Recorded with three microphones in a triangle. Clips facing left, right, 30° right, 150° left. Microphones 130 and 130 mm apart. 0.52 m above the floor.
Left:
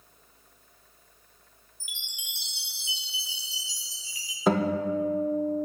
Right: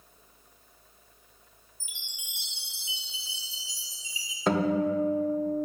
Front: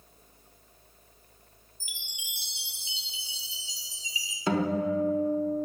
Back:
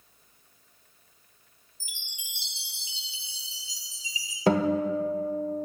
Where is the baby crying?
No baby crying in this recording.